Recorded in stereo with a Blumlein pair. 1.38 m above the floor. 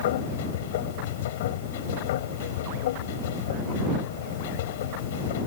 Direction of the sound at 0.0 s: 55° left.